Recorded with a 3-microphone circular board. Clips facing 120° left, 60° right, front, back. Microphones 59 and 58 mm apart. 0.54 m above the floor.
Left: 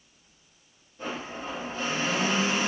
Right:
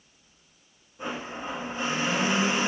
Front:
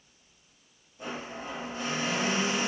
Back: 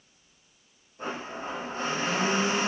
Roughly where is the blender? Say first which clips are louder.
Right 1 dB, back 3 dB; behind right.